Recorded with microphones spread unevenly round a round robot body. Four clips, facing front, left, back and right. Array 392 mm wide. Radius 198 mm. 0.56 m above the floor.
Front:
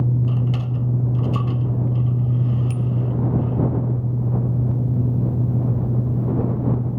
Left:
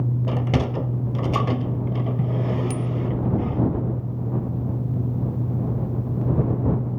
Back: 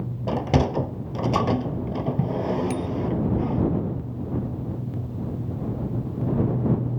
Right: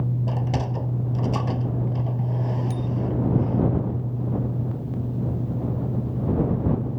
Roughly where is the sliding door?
Behind.